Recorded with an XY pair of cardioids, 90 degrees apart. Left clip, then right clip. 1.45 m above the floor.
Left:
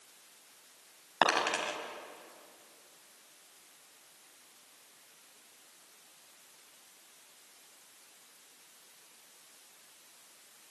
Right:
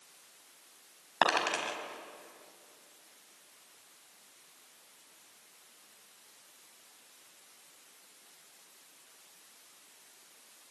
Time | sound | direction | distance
1.2 | a dropped coin | straight ahead | 4.5 m